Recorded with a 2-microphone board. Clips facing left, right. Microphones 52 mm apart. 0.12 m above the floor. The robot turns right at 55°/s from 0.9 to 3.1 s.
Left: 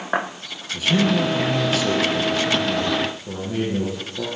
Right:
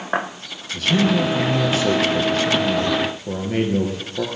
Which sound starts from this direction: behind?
A man speaking, at 0.7 s.